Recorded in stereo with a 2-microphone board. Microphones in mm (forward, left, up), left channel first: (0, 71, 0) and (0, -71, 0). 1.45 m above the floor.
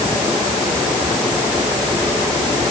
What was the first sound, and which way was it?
Only background noise.